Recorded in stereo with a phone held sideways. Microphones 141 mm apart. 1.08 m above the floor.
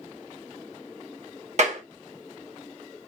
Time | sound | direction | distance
1.6 | a clap | 55° right (ahead or behind) | 1.6 m